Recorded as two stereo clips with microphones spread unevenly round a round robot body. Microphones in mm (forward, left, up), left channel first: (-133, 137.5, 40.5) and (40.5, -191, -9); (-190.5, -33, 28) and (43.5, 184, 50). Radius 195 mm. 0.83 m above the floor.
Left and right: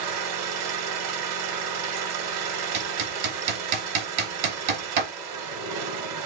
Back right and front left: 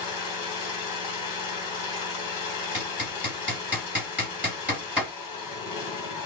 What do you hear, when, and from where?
0.0 s an engine running: 95° right, 1.7 m
2.7 s hammering: 45° right, 1.9 m